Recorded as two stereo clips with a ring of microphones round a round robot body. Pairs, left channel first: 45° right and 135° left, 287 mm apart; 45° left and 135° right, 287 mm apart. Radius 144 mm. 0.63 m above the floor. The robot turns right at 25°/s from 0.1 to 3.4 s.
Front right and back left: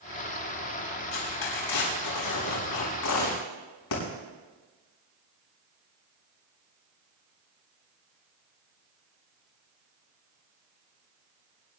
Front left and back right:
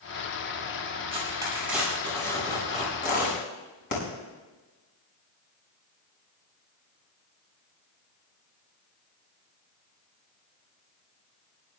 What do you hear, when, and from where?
1.1 s tearing paper: 65° right, 7 m; by 4.0 s 5° right, 7 m